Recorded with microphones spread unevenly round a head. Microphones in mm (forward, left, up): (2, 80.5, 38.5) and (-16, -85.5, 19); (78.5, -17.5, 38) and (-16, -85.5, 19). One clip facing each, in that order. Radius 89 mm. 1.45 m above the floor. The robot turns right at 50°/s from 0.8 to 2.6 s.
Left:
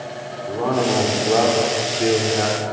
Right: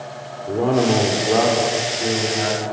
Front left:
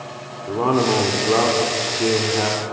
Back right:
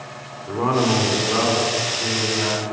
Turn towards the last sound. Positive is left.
turn(degrees=60)